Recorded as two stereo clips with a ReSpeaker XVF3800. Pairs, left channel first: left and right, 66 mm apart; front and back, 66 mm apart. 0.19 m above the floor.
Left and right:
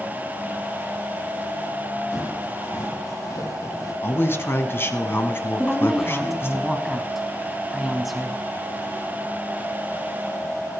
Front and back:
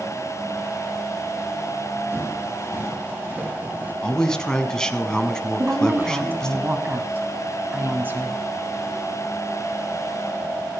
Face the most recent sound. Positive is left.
turn(degrees=180)